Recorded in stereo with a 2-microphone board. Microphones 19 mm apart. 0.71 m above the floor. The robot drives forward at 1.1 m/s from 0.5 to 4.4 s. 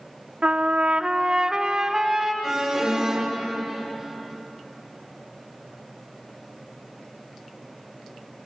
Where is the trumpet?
70° right (ahead or behind), 0.6 m; by 2.3 s 15° right (ahead or behind), 2.0 m.